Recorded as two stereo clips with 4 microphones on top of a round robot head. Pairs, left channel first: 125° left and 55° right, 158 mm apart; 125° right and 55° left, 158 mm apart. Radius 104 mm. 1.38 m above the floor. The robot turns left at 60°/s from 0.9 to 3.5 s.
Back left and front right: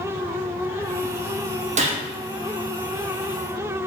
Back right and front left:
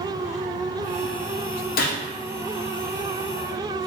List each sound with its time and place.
1.8 s a gunshot: 100° right, 0.6 m; by 2.0 s 110° right, 0.6 m